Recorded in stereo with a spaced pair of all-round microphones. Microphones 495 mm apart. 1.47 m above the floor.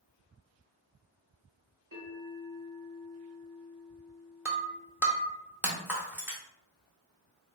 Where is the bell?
40° right (ahead or behind), 1.6 m.